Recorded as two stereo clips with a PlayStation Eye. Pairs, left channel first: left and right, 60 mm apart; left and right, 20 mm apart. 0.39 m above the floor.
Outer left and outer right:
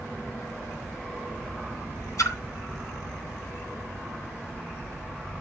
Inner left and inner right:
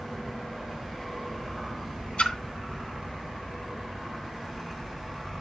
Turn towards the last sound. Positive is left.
turn(degrees=75)  # may be behind; listen again after turning